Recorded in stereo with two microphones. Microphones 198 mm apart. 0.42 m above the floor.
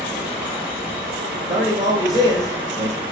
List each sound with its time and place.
0.0 s running water: 10° right (ahead or behind), 3 m
1.5 s a man speaking: 30° right (ahead or behind), 1.2 m